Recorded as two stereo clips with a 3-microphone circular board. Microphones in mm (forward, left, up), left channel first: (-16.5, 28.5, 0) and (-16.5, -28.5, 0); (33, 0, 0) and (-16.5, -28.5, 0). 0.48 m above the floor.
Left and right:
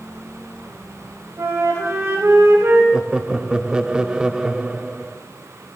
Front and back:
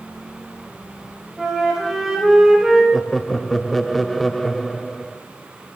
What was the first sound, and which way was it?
A flute, 65° right.